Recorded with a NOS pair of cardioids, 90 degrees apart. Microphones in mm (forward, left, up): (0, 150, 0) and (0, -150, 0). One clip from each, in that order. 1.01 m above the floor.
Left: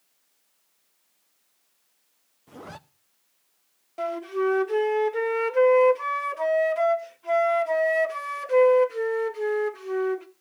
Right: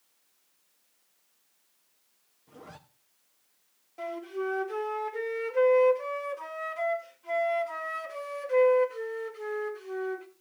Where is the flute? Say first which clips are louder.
Left 7 dB; 45° left, 1.8 m.